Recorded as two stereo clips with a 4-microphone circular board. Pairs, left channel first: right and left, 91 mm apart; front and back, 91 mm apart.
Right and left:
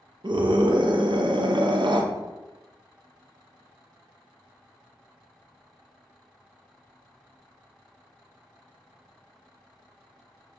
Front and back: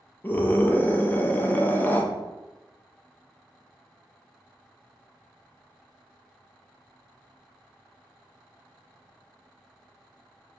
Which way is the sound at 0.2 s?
70° left.